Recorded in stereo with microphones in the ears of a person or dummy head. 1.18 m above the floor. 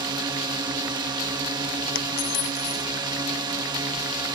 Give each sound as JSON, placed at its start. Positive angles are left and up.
{"t": 0.0, "sound": "a drone", "side_deg": -25}
{"t": 1.9, "sound": "a dropped coin", "side_deg": 65}